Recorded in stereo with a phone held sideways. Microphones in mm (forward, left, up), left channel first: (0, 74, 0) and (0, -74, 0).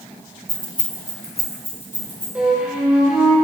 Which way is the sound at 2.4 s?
10° right (ahead or behind).